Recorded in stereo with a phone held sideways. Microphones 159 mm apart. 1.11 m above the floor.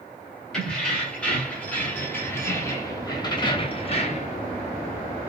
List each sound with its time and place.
0.5 s keys jangling: 5° left (ahead or behind), 2.5 m; by 4.4 s 50° left (ahead or behind), 1.0 m